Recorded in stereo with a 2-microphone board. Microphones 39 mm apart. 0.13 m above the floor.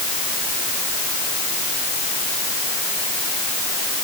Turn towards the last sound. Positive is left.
No sound to turn to.